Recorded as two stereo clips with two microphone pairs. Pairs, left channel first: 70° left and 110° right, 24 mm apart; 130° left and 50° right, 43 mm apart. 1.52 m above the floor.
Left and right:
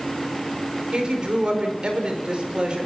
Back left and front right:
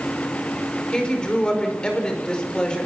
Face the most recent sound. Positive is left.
turn(degrees=-155)